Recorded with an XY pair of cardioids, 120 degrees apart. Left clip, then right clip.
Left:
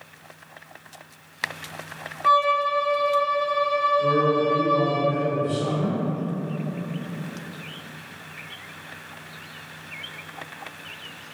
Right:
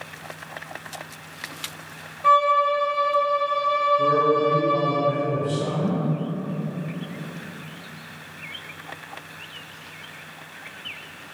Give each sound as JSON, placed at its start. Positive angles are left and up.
{"t": 2.2, "sound": "a violin", "azimuth_deg": -35, "distance_m": 1.5}
{"t": 4.0, "sound": "a man speaking", "azimuth_deg": -65, "distance_m": 1.3}